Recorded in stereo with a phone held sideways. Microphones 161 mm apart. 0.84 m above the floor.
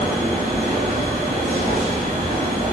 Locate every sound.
0.0 s a machine running: 50° right (ahead or behind), 1.5 m